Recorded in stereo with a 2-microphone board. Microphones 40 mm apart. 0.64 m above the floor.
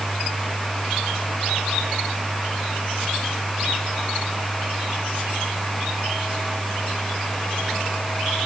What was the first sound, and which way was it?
Only background noise.